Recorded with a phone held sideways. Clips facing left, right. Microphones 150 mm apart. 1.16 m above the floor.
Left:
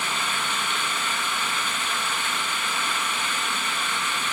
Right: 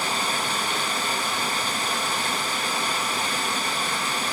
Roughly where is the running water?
Right.